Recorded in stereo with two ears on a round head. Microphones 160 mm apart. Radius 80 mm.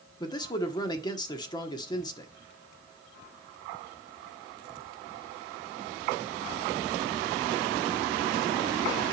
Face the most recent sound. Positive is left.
turn(degrees=25)  # may be behind; listen again after turning